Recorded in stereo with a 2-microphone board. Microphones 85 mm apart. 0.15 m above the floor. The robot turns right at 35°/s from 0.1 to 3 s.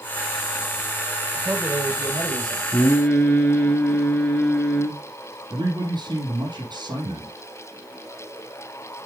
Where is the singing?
30° left (ahead or behind), 2 m; by 5.0 s 20° left (ahead or behind), 2 m.